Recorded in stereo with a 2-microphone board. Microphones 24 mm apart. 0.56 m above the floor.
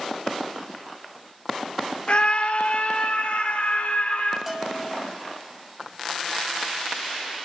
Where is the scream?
50° left (ahead or behind), 1.0 m; by 4.4 s 80° left, 3.5 m.